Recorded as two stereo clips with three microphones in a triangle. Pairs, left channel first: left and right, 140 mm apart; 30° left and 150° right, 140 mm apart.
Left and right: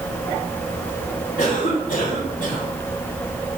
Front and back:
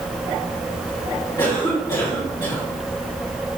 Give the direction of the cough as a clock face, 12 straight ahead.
9 o'clock.